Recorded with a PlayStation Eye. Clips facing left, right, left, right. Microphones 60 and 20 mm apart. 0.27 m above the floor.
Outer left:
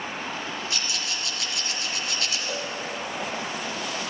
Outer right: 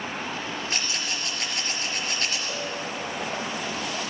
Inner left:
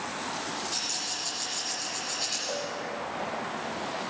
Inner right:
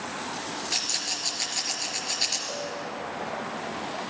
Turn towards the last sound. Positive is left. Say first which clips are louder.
# even, even
turn(degrees=-10)  # may be behind; listen again after turning